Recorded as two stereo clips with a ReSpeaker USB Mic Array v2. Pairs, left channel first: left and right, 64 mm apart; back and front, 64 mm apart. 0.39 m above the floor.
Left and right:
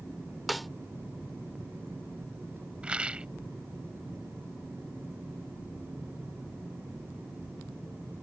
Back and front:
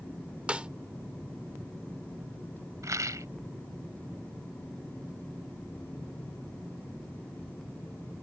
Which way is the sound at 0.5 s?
Straight ahead.